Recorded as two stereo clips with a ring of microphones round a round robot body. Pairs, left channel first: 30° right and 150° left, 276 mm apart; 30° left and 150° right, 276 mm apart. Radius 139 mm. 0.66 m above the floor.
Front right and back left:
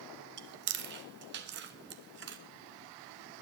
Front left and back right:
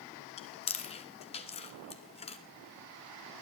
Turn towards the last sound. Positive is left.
turn(degrees=100)